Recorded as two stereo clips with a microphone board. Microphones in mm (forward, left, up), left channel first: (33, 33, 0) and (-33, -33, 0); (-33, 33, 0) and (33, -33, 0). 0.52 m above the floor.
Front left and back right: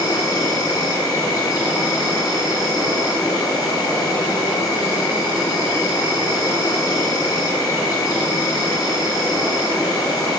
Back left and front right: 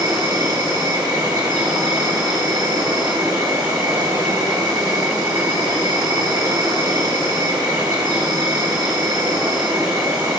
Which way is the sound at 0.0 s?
5° right.